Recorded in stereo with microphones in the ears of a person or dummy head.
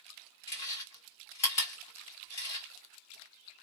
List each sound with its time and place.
0.5 s chewing: 35° left (ahead or behind), 1.3 m